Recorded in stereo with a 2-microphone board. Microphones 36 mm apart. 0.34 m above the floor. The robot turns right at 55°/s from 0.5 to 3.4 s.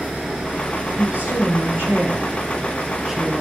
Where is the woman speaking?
45° right (ahead or behind), 8 m; by 3.4 s 5° right (ahead or behind), 8 m.